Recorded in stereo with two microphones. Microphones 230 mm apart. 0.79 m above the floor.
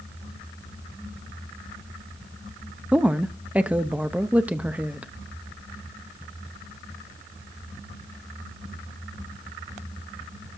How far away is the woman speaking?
About 0.7 m.